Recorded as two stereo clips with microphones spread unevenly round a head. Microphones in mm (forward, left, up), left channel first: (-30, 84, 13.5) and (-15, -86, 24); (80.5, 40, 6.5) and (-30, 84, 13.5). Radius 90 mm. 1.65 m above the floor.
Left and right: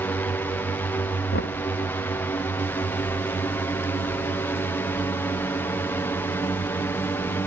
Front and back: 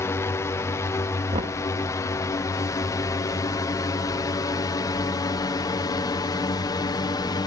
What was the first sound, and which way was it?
A drone, 25° left.